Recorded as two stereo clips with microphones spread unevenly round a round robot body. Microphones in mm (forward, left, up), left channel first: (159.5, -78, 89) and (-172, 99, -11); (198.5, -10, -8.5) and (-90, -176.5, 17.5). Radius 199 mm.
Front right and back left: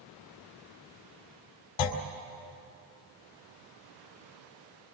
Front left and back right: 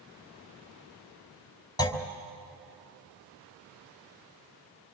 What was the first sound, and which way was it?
A clunk, 50° right.